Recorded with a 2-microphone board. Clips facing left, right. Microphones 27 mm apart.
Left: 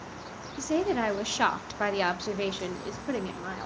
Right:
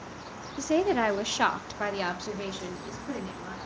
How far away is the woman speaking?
About 1.0 m.